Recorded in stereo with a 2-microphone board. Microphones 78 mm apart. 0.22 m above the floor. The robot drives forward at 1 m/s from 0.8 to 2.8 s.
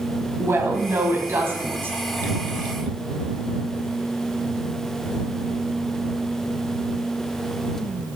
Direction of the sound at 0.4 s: 30° right (ahead or behind).